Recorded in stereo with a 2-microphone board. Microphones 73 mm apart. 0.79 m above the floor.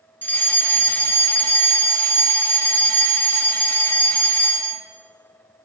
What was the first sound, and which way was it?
A fire alarm, 25° left (ahead or behind).